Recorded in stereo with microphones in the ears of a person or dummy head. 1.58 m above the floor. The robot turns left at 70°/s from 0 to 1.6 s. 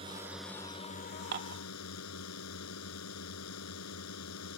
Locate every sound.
0.0 s a drone: 150° right; by 4.6 s 100° left
1.3 s dishes clattering: 50° right (ahead or behind); by 1.6 s 65° right (ahead or behind)